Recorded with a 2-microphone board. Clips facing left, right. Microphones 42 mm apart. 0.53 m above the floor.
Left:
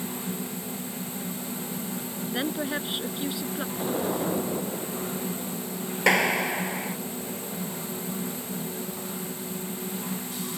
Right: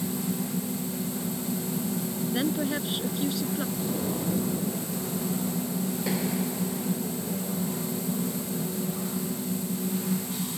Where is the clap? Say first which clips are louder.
Left 11 dB; 70° left (ahead or behind).